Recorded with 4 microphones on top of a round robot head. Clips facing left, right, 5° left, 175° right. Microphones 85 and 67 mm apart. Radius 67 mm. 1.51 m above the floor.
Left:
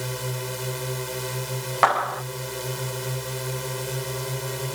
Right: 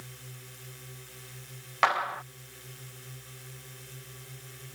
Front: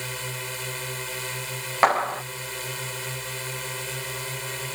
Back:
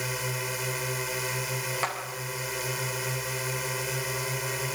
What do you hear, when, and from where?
0.0 s a drone: 105° left
1.8 s a clap: 35° left